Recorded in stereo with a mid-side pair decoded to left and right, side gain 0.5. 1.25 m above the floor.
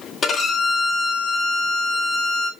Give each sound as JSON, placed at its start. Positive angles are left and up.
{"t": 0.2, "sound": "a violin", "azimuth_deg": 45, "distance_m": 1.4}